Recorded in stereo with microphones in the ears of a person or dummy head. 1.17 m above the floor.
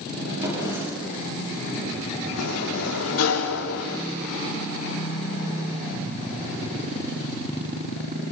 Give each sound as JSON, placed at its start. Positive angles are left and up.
{"t": 0.4, "sound": "a drawer", "side_deg": -25, "distance_m": 8.5}
{"t": 2.4, "sound": "a sliding door", "side_deg": 75, "distance_m": 3.0}